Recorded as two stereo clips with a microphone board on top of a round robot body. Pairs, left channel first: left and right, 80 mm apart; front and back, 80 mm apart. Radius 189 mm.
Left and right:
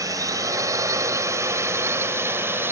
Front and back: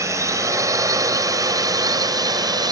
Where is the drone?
130° right; by 2.7 s 150° right.